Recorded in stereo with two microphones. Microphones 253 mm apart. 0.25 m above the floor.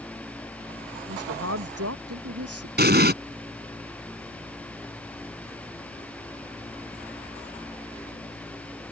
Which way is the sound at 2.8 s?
40° right (ahead or behind).